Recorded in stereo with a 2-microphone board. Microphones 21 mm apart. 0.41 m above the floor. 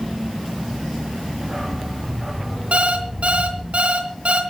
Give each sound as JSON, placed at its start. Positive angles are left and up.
{"t": 1.4, "sound": "a dog barking", "side_deg": -15, "distance_m": 9.0}
{"t": 2.7, "sound": "an alarm clock", "side_deg": -65, "distance_m": 3.0}